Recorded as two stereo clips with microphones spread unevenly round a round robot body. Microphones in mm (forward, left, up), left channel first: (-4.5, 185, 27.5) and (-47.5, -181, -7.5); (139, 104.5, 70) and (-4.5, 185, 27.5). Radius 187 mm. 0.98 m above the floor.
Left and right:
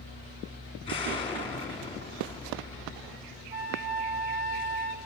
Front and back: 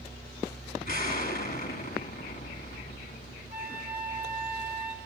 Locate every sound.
0.8 s an explosion: 5° left, 2.5 m
3.5 s a flute: 10° right, 2.5 m